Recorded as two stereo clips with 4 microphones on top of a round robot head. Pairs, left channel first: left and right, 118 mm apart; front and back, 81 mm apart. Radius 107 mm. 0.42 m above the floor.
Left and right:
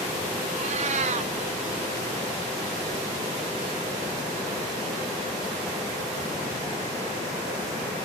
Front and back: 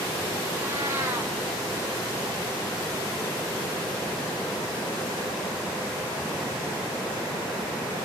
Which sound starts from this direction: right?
A cat meowing, at 0.5 s.